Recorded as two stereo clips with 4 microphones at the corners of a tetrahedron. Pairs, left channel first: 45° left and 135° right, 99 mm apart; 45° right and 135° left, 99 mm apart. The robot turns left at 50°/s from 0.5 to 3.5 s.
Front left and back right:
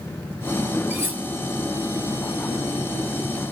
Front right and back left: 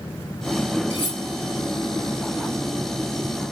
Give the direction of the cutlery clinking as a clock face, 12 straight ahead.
2 o'clock.